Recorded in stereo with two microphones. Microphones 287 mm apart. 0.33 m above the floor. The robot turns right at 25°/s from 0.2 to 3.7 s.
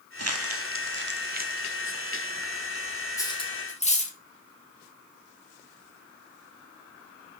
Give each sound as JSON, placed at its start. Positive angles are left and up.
{"t": 0.2, "sound": "crumpling", "side_deg": -60, "distance_m": 1.1}
{"t": 3.2, "sound": "cutlery clinking", "side_deg": 10, "distance_m": 1.7}